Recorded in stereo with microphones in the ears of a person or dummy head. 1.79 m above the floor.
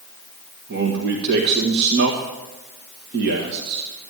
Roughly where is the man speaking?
Right.